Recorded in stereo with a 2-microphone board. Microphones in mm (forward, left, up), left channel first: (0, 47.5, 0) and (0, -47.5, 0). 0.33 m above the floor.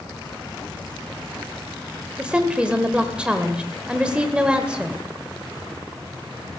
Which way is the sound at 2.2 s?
10° right (ahead or behind).